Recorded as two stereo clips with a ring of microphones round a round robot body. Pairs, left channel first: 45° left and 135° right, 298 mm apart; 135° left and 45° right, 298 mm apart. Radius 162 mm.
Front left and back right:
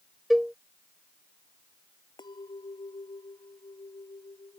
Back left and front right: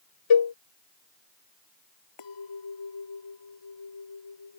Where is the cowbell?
135° left.